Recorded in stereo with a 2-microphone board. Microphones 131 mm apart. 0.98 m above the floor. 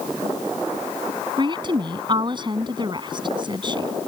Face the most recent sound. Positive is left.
turn(degrees=-35)  # may be behind; listen again after turning